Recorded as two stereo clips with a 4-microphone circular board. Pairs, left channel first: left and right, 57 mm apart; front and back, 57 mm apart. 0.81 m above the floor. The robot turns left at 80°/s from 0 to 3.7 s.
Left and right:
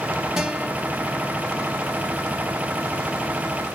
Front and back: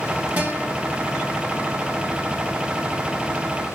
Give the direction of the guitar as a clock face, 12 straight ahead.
5 o'clock.